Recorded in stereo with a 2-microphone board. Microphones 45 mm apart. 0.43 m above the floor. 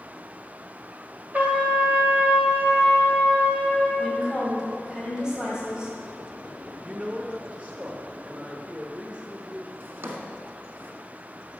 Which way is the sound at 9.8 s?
55° right (ahead or behind).